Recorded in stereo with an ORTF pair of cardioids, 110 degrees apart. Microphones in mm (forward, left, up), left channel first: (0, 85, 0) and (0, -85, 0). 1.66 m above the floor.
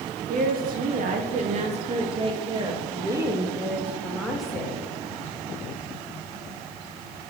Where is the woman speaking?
65° right, 2 m; by 4.8 s 5° left, 2 m.